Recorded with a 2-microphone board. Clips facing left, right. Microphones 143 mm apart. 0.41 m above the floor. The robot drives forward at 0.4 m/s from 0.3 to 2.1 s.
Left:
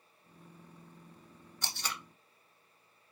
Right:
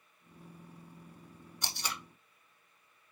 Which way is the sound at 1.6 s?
15° right (ahead or behind).